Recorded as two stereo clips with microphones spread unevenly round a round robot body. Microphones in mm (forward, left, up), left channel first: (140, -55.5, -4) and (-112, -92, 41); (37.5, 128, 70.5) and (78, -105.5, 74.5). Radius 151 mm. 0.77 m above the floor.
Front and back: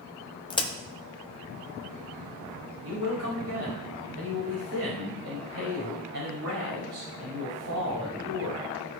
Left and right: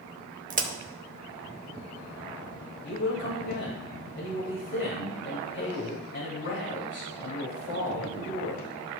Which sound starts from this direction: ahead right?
A crack, at 0.5 s.